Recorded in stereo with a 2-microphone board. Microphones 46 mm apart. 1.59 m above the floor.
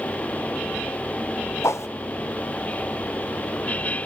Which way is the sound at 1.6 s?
75° left (ahead or behind).